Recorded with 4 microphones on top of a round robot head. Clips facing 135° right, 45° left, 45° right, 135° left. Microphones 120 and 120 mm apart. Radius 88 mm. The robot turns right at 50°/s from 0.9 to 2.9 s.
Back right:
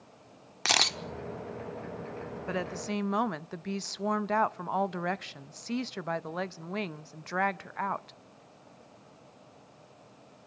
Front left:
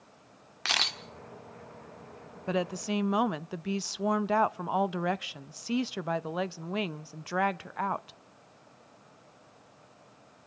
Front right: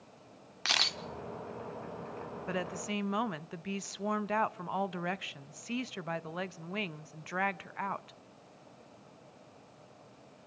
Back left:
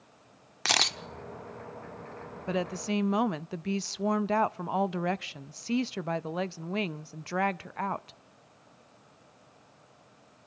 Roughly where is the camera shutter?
Behind.